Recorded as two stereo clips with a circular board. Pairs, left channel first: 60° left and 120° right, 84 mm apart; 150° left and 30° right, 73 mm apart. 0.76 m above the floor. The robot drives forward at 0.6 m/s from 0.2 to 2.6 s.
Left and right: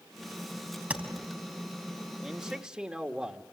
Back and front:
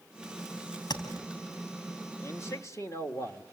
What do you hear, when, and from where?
0.9 s tapping: 170° left, 4 m
2.2 s a man speaking: 160° left, 1.3 m; by 3.4 s 165° left, 1.5 m